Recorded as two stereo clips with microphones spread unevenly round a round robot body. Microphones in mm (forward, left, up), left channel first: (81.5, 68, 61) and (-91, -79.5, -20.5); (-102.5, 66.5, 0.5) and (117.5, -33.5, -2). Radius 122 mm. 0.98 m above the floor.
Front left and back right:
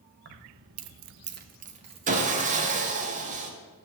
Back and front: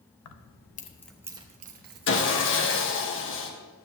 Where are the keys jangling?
Straight behind, 0.8 m; by 3.1 s 60° right, 2.0 m.